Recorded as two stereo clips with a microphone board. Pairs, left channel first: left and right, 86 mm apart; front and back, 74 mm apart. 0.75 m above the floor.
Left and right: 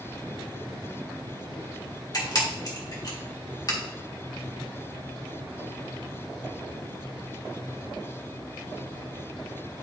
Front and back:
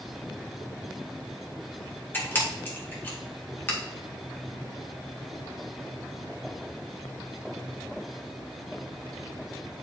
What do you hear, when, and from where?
2.1 s a camera shutter: 60° left, 1.7 m